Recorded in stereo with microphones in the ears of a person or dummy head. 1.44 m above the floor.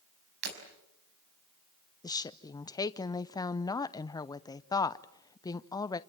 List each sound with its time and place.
0.4 s breaking glass: 60° right (ahead or behind), 5 m
2.0 s a woman speaking: 20° left (ahead or behind), 0.7 m